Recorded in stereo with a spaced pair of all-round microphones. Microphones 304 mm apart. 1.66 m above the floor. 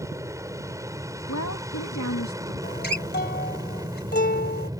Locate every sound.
0.0 s an aircraft: 10° right (ahead or behind)
1.3 s a woman speaking: 60° left (ahead or behind)
2.6 s a guitar: 30° left (ahead or behind)